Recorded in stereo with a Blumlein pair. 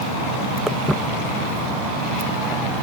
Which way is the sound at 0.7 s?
Straight ahead.